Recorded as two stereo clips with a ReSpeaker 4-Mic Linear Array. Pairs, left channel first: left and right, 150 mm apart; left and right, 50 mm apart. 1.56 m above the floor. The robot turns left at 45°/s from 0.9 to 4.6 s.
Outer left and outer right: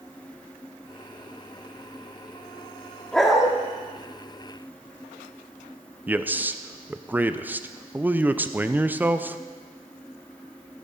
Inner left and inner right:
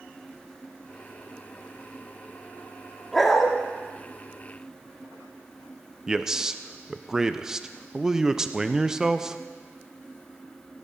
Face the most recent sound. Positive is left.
turn(degrees=-10)  # may be behind; listen again after turning